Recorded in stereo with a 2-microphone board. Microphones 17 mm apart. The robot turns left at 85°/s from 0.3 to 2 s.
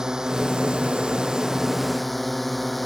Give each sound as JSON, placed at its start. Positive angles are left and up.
{"t": 0.0, "sound": "a drone", "azimuth_deg": -35}